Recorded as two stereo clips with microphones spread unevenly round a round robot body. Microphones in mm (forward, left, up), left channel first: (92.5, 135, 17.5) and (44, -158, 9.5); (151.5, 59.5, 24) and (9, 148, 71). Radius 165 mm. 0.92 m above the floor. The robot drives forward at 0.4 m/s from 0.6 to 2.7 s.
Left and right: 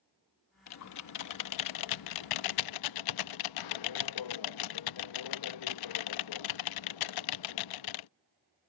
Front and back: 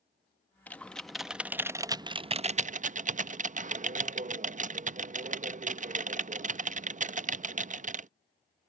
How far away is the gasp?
No gasp in this recording.